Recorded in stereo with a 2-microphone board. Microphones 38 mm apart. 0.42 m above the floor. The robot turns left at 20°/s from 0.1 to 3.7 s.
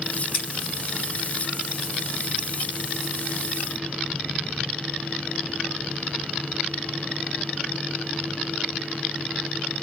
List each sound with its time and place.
0.3 s scissors: 60° left (ahead or behind), 2.5 m